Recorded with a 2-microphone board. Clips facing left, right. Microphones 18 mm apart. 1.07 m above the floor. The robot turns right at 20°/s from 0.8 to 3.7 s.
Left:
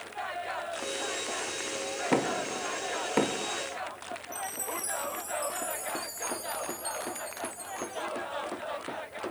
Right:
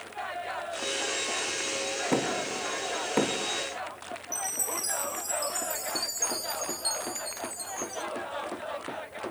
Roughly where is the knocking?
Left.